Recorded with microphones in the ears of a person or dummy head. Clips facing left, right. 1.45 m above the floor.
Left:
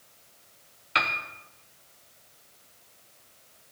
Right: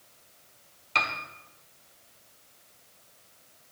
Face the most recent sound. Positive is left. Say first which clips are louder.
# left 1 dB
turn(degrees=15)  # may be behind; listen again after turning